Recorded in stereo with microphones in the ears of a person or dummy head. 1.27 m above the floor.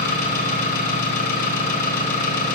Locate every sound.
0.0 s an engine running: 55° left (ahead or behind), 3 m